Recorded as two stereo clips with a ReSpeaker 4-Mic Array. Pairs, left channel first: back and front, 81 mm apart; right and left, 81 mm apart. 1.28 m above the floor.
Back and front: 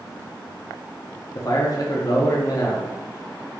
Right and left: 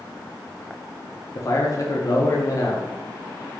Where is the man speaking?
135° right, 0.7 m.